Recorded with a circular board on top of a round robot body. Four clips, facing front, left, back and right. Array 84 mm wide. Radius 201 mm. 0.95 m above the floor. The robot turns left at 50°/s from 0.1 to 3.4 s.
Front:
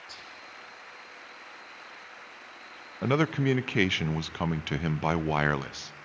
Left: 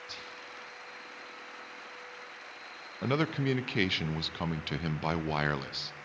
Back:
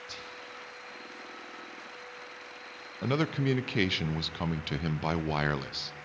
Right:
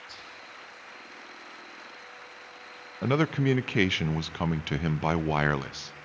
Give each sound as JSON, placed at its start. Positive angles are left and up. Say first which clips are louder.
{"t": 0.1, "sound": "whispering", "louder": "left 1 dB, back 2 dB", "azimuth_deg": 145, "distance_m": 1.7}
{"t": 3.0, "sound": "a man speaking", "louder": "right 4 dB, front 3 dB", "azimuth_deg": -20, "distance_m": 0.8}